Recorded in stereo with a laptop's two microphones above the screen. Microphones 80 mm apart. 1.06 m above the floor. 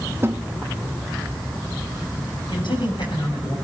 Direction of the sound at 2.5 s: 75° left (ahead or behind).